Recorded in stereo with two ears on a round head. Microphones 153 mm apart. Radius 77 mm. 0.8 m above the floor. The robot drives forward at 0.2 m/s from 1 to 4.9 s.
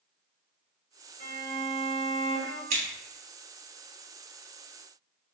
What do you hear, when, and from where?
1.2 s a violin: 45° left (ahead or behind), 1.3 m; by 2.6 s 40° left (ahead or behind), 1.5 m
2.7 s scissors: 40° right (ahead or behind), 1.3 m